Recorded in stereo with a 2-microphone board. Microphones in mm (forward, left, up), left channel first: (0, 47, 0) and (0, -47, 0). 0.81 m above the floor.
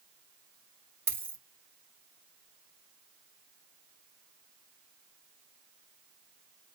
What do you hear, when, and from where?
1.1 s a dropped coin: 25° right (ahead or behind), 1.1 m